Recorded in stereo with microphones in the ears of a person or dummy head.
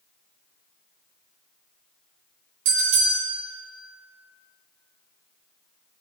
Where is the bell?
75° right (ahead or behind), 4 m.